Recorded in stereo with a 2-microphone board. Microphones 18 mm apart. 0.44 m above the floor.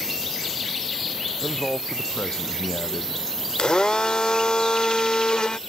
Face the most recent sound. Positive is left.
turn(degrees=55)  # may be behind; listen again after turning